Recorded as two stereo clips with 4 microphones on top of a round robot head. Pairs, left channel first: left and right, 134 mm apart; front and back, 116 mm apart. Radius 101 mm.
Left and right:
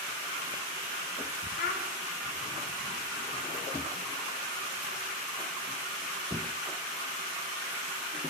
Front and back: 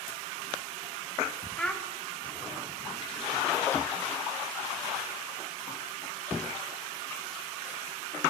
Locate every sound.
1.6 s a child speaking: 80° left, 0.6 m